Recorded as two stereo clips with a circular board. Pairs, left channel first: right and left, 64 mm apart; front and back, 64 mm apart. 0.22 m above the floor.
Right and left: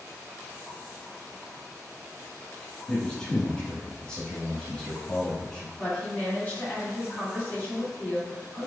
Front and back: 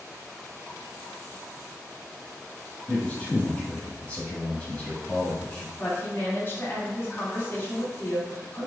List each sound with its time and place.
2.9 s a man speaking: 35° right, 1.2 m
5.8 s a woman speaking: 40° right, 1.9 m